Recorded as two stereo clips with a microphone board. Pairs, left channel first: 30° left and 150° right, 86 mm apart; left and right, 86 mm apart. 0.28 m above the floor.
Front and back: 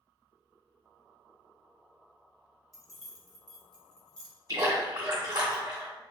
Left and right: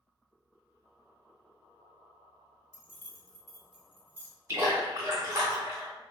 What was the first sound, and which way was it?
Keys jangling, 115° left.